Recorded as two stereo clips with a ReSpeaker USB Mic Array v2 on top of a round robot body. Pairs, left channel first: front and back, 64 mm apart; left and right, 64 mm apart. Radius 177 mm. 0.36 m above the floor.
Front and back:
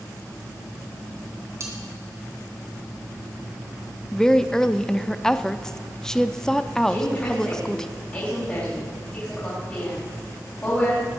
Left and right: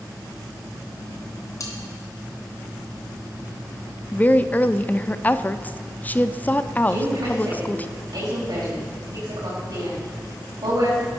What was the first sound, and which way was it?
Cutlery clinking, 135° left.